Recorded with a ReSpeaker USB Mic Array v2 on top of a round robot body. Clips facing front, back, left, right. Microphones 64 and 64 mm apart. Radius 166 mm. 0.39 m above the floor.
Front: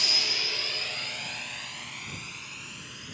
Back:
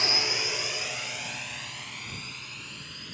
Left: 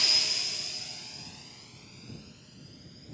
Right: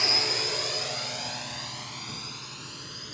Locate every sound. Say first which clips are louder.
0.0 s a drone: back 3 dB, right 7 dB; 135° right; by 3.1 s 85° right